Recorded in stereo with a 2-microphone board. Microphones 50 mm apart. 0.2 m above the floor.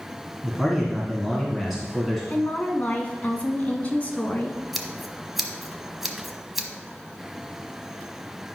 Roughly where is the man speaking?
Centre.